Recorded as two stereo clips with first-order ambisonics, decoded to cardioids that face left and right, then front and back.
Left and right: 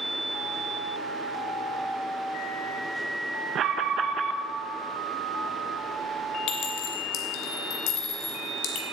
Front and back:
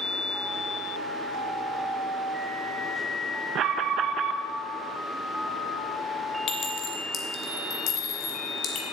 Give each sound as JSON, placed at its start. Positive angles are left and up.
{"t": 3.5, "sound": "an alarm", "azimuth_deg": -135, "distance_m": 0.7}
{"t": 6.5, "sound": "a clink", "azimuth_deg": 55, "distance_m": 2.0}